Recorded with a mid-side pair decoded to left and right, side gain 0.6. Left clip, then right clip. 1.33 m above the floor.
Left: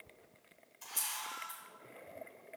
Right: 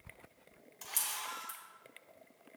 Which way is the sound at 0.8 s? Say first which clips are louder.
Right 1 dB; 50° right.